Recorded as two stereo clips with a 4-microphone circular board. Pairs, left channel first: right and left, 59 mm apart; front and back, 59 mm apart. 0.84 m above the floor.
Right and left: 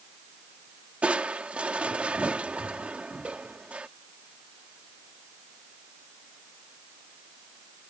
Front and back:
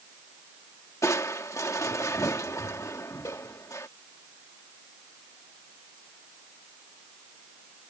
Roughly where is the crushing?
Ahead left.